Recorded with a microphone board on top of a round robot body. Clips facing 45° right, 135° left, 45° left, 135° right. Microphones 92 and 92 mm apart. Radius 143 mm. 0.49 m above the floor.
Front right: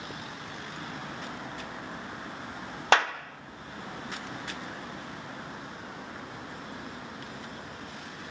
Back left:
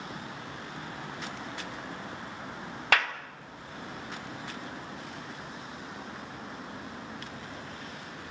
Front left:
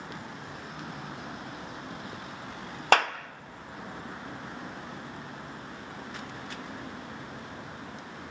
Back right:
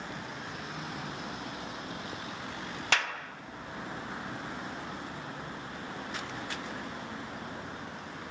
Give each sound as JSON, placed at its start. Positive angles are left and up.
{"t": 2.9, "sound": "a clap", "azimuth_deg": 15, "distance_m": 1.5}